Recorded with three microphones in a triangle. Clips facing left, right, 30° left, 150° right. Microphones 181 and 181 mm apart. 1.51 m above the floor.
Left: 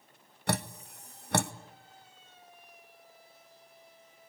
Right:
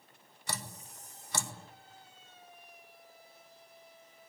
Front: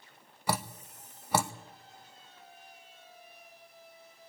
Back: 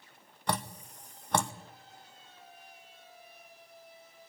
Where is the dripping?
110° left, 0.8 m.